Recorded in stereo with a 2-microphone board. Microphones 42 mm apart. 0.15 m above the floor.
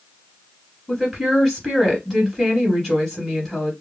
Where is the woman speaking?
10° left (ahead or behind), 2.5 m.